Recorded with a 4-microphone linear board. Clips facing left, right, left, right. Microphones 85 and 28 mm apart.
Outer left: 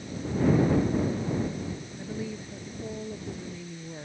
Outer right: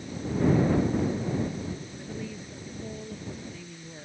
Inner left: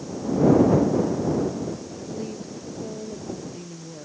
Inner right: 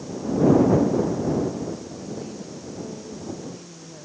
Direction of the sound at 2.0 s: 10° left (ahead or behind).